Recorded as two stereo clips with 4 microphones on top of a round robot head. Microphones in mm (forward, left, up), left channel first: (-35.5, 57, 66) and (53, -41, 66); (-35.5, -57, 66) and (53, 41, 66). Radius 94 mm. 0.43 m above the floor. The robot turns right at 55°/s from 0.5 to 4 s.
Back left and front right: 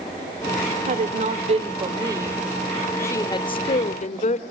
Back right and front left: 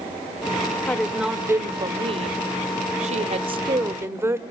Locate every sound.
0.9 s a woman speaking: 55° right, 1.3 m; by 4.4 s 115° left, 1.3 m